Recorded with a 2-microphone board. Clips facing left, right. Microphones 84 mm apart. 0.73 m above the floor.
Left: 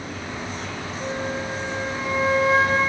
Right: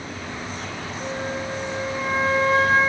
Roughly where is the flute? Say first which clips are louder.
Left 1 dB; centre.